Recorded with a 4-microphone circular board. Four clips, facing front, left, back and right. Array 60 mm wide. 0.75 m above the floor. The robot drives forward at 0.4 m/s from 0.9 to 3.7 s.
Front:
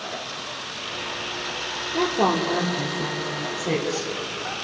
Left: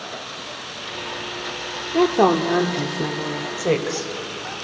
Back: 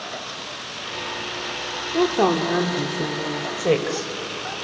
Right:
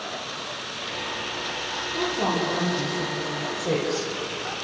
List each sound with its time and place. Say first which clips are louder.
1.9 s a woman speaking: left 10 dB, back 2 dB; 105° left, 1.5 m; by 3.5 s 125° left, 1.8 m
3.6 s a woman speaking: left 4 dB, back 5 dB; 150° left, 3 m